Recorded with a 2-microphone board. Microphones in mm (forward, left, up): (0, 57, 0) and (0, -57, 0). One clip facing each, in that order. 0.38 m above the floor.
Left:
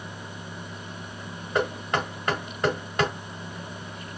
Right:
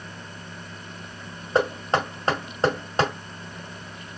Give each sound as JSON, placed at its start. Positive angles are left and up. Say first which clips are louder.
{"t": 1.6, "sound": "knocking", "louder": "right 4 dB", "side_deg": -30, "distance_m": 1.6}